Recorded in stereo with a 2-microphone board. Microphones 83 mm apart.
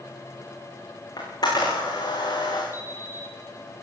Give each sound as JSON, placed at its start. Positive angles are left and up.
{"t": 1.2, "sound": "a camera shutter", "side_deg": 55, "distance_m": 7.5}
{"t": 2.7, "sound": "an alarm clock", "side_deg": -30, "distance_m": 7.0}